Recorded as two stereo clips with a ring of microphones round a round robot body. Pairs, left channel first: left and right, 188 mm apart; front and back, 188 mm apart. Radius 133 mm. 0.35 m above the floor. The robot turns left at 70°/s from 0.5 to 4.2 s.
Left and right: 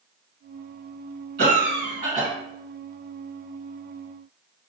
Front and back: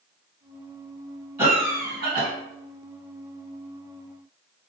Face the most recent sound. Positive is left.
turn(degrees=45)